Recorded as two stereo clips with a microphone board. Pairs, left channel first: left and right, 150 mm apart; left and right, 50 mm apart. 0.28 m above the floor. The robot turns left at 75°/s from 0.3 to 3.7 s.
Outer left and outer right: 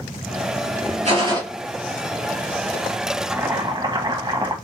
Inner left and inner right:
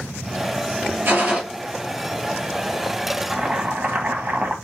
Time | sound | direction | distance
1.1 | a gunshot | 50° right (ahead or behind) | 3 m
3.3 | boiling | 10° right (ahead or behind) | 1.4 m